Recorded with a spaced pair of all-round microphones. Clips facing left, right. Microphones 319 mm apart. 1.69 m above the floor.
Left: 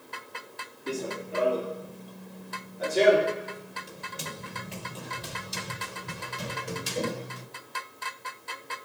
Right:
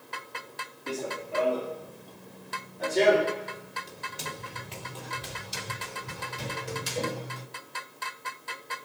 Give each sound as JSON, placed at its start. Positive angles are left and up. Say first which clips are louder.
{"t": 0.9, "sound": "running footsteps", "louder": "left 1 dB", "side_deg": 25, "distance_m": 2.0}